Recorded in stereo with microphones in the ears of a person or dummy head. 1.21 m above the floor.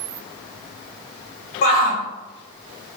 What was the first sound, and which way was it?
A shout, 55° left (ahead or behind).